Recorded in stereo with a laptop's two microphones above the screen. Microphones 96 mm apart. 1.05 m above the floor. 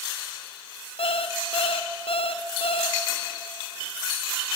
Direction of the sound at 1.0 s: 70° left (ahead or behind).